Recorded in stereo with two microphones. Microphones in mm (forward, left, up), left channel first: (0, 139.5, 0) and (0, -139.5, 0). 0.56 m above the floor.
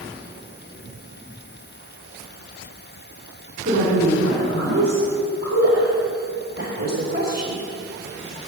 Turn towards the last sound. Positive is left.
turn(degrees=-35)  # may be behind; listen again after turning